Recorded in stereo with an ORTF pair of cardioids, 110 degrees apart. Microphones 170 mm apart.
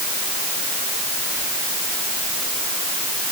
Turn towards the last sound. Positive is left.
No sound to turn to.